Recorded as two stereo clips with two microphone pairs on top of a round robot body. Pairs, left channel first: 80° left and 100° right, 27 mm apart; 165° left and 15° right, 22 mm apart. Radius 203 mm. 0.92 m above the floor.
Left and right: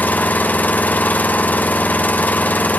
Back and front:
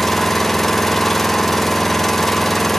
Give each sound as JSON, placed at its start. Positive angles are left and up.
{"t": 0.0, "sound": "an engine running", "azimuth_deg": 85, "distance_m": 1.4}